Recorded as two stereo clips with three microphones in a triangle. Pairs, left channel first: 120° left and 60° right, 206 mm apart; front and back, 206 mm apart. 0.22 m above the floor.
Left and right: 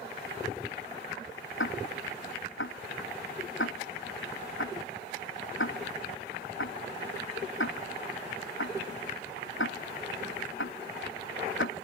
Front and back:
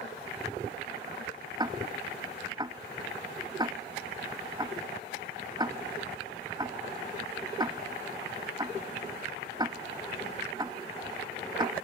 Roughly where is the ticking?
Left.